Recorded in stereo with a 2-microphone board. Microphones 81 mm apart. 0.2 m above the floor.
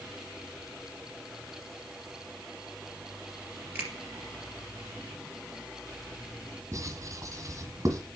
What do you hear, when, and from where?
3.8 s a finger snap: 25° right (ahead or behind), 3.5 m
6.7 s writing: 45° right (ahead or behind), 1.8 m